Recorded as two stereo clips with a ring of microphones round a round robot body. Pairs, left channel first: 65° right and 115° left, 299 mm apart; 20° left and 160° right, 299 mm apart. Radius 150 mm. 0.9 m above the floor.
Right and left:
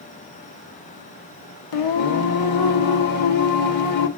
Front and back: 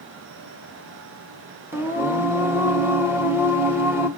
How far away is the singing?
About 0.7 m.